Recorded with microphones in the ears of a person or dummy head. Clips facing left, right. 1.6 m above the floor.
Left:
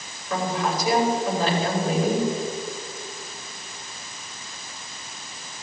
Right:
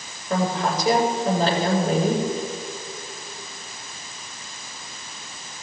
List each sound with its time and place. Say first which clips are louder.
0.3 s a woman speaking: right 2 dB; 35° right (ahead or behind), 6.5 m